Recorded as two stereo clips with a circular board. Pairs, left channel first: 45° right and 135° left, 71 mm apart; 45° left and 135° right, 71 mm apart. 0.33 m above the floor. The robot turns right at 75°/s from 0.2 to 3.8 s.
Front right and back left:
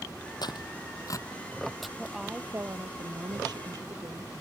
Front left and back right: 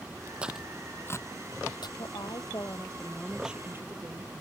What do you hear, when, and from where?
0.4 s tearing paper: 60° right; by 1.9 s 50° left
2.0 s a woman speaking: 35° left; by 4.4 s 170° left